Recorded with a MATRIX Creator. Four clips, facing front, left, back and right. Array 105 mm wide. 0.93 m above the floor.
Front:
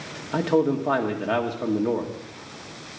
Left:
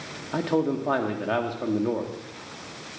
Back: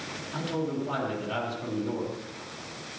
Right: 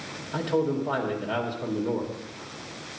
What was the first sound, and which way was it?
A man speaking, 35° left.